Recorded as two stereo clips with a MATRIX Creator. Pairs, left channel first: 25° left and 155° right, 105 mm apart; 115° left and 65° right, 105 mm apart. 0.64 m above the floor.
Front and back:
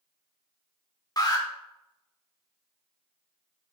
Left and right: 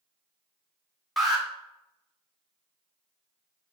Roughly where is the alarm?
Ahead left.